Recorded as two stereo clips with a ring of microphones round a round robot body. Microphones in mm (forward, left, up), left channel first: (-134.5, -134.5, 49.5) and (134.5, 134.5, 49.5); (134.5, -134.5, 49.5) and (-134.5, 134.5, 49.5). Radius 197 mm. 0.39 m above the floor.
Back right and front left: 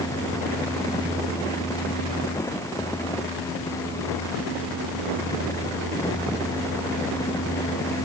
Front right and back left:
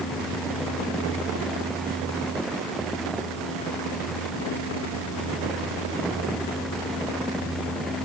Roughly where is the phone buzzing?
I don't hear a phone buzzing.